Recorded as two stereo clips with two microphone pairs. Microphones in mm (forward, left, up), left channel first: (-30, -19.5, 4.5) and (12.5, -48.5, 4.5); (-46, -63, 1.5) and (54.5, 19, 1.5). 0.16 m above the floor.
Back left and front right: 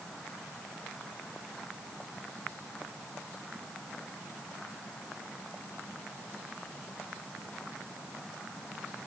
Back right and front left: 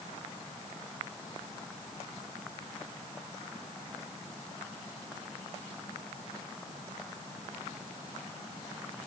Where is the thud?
No thud in this recording.